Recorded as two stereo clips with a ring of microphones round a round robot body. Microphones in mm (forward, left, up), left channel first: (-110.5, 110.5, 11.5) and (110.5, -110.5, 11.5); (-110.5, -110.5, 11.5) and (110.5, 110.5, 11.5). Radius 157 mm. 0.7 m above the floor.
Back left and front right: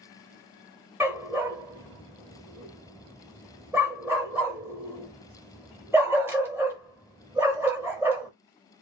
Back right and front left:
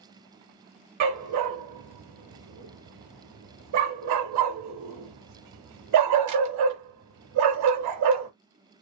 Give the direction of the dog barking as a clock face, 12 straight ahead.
11 o'clock.